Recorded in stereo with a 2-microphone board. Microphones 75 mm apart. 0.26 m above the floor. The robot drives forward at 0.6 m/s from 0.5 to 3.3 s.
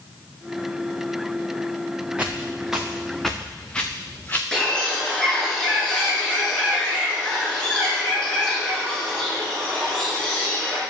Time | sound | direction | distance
2.2 | footsteps | 15° right (ahead or behind) | 2.5 m
4.5 | a bird | 10° left (ahead or behind) | 4 m